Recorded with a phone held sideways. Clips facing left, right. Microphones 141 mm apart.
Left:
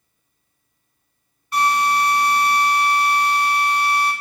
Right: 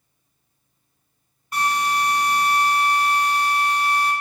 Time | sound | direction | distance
1.5 | a drill | 45° right (ahead or behind) | 1.9 m